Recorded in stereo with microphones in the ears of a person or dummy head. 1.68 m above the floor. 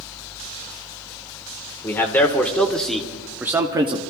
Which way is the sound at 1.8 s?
15° left (ahead or behind).